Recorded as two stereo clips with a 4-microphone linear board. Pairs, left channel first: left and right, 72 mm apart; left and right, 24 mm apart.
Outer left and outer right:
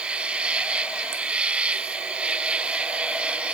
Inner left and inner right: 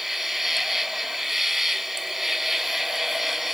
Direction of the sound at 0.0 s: 15° right (ahead or behind).